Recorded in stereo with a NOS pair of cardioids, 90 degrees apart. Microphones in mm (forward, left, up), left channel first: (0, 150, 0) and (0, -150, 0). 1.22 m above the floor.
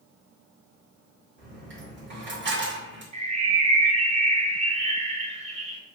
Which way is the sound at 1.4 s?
40° right.